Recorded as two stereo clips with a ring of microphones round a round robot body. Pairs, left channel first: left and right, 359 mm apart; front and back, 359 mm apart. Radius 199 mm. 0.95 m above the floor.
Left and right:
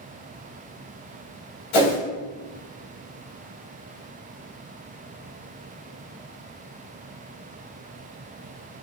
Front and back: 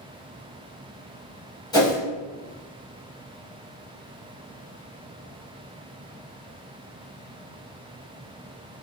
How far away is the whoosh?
About 1.7 m.